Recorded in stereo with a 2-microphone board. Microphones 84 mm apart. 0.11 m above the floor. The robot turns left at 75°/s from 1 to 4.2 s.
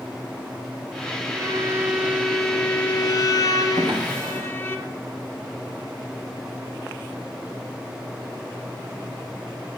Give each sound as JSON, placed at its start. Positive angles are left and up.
{"t": 1.3, "sound": "a violin", "azimuth_deg": -105, "distance_m": 2.0}
{"t": 3.8, "sound": "a drawer", "side_deg": -70, "distance_m": 3.5}